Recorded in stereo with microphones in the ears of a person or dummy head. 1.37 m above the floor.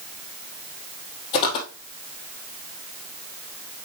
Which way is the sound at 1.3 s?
30° left (ahead or behind).